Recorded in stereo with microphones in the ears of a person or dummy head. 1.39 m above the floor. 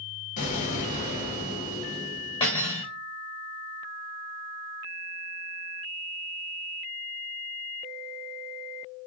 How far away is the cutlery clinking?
About 0.8 m.